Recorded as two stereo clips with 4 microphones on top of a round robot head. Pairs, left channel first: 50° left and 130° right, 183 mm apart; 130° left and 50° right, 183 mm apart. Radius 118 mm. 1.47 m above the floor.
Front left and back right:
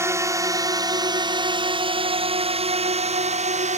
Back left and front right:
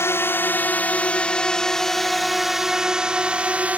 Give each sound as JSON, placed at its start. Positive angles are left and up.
{"t": 0.0, "sound": "a drone", "azimuth_deg": 180}